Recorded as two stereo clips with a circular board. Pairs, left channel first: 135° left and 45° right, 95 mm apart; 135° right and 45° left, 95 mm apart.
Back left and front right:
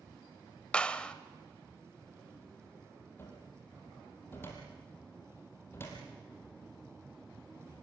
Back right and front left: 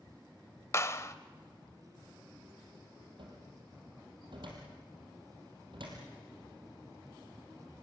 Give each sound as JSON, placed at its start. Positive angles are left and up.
{"t": 0.7, "sound": "a clap", "azimuth_deg": -155, "distance_m": 0.8}
{"t": 3.2, "sound": "a cupboard door", "azimuth_deg": 70, "distance_m": 5.0}